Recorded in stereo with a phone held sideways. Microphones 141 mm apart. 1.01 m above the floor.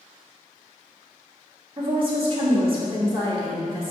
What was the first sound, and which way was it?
A woman speaking, 35° right (ahead or behind).